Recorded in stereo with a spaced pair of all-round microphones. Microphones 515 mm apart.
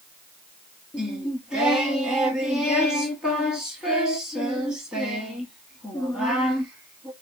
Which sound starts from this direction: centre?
Singing, at 0.9 s.